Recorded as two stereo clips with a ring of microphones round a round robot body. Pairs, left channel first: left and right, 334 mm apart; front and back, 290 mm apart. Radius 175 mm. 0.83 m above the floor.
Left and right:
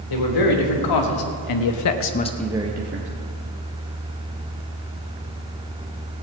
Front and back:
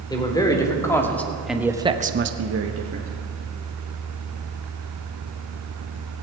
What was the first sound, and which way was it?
A man speaking, 75° left.